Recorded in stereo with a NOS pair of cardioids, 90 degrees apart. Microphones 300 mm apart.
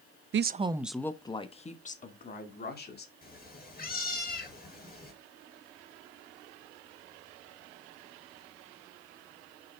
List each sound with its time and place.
0.3 s a woman speaking: 45° right, 0.5 m; by 3.1 s 35° left, 2.5 m
3.2 s a cat meowing: 30° left, 4.5 m